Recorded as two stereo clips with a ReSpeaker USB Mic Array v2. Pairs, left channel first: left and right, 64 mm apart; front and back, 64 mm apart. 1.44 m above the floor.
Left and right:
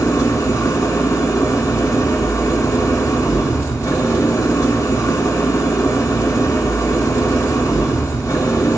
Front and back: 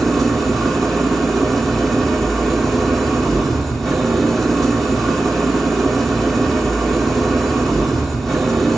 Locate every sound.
0.0 s an engine running: 85° left, 2 m